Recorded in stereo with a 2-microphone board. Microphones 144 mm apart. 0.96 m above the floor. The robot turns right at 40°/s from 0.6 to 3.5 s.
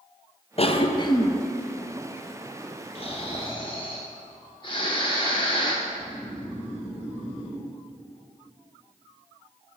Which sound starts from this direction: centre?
Snoring, at 5.8 s.